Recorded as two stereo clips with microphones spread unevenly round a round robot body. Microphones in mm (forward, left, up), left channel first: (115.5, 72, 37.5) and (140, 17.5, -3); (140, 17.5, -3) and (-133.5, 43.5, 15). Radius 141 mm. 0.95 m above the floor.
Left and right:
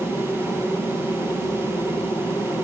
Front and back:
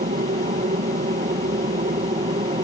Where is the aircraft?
170° right; by 2.6 s 175° right.